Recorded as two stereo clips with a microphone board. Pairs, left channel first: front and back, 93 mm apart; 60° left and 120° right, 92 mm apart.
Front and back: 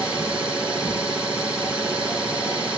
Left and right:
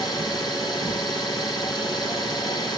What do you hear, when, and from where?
0.0 s an engine running: 105° left, 5 m